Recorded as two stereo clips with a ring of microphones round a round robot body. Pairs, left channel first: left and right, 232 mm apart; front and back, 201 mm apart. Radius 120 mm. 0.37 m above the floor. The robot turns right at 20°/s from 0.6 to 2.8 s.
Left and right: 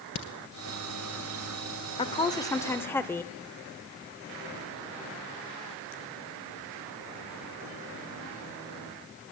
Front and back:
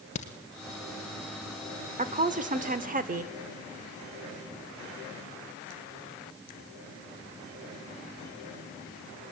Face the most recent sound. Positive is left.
turn(degrees=165)